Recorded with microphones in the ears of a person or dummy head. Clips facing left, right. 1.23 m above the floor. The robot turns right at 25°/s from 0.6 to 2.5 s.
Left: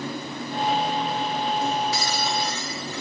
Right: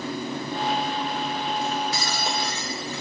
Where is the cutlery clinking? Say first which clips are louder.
Left 2 dB; 35° right (ahead or behind), 2.5 m; by 3.0 s 55° right (ahead or behind), 2.5 m.